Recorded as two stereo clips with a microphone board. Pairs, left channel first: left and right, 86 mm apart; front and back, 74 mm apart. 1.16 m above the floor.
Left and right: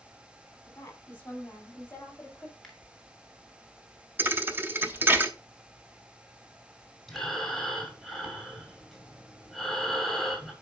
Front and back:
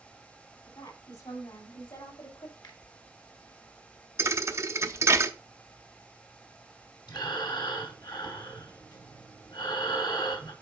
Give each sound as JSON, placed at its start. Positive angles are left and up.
{"t": 0.7, "sound": "a woman speaking", "azimuth_deg": 25, "distance_m": 4.0}
{"t": 2.6, "sound": "a finger snap", "azimuth_deg": 5, "distance_m": 2.5}
{"t": 4.2, "sound": "a thud", "azimuth_deg": -150, "distance_m": 0.8}
{"t": 7.1, "sound": "breathing", "azimuth_deg": 5, "distance_m": 2.5}